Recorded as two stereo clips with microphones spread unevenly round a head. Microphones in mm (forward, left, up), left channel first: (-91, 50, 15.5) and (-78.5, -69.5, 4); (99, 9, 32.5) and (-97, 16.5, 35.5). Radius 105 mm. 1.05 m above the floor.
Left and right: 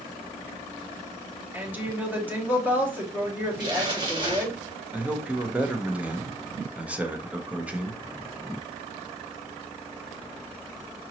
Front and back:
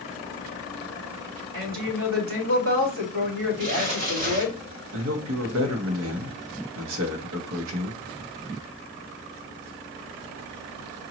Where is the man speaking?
165° right, 1.0 m.